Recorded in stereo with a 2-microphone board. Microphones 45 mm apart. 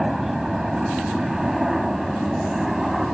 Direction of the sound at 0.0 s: 5° right (ahead or behind).